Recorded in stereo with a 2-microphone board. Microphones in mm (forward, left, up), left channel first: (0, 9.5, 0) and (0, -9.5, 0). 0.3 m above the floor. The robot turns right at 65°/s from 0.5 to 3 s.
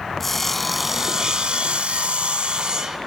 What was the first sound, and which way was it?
Sawing, 170° left.